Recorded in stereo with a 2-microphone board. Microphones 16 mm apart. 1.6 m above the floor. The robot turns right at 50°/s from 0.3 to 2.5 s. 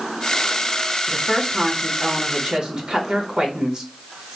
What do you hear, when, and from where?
1.1 s a woman speaking: 175° left, 1.6 m; by 3.9 s 110° right, 1.6 m